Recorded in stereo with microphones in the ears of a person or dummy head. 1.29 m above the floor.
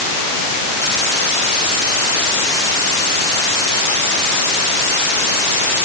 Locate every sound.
Only background noise.